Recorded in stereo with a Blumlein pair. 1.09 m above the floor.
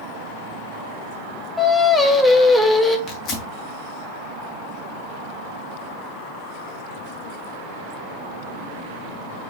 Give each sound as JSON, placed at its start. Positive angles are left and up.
{"t": 1.6, "sound": "singing", "azimuth_deg": 10, "distance_m": 1.4}
{"t": 3.1, "sound": "tearing paper", "azimuth_deg": 40, "distance_m": 2.5}